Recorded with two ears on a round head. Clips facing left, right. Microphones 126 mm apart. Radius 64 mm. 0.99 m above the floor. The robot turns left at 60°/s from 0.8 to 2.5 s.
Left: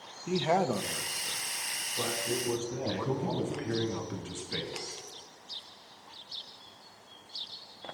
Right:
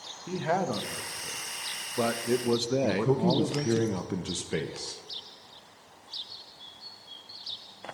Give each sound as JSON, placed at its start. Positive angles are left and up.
{"t": 0.3, "sound": "a man speaking", "azimuth_deg": 10, "distance_m": 0.7}
{"t": 2.8, "sound": "a man speaking", "side_deg": -45, "distance_m": 0.8}